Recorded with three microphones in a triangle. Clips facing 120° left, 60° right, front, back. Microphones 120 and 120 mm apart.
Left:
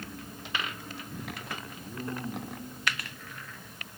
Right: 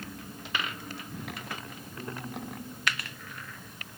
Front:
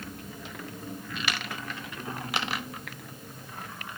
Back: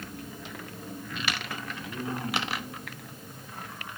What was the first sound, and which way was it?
A man speaking, 165° left.